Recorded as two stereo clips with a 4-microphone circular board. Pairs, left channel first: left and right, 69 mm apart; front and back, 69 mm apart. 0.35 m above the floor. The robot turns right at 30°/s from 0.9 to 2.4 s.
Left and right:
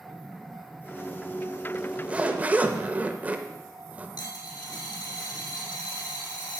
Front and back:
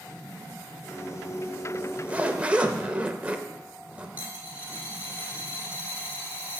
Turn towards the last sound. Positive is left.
turn(degrees=115)